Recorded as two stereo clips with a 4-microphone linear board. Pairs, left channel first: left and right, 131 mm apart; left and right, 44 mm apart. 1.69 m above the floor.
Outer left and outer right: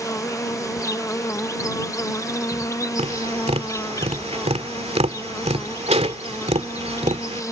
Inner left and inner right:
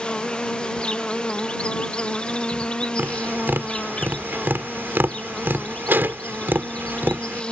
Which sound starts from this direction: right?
Tapping, at 3.0 s.